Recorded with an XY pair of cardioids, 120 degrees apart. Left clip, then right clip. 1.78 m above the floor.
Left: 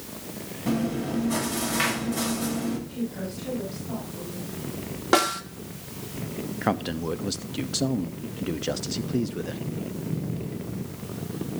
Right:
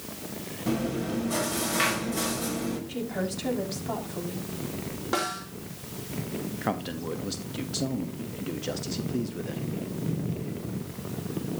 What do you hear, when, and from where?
0.7 s chewing: 5° left, 9 m
2.9 s a woman speaking: 60° right, 6 m
5.1 s a snare drum: 50° left, 3 m
6.6 s a man speaking: 25° left, 1.0 m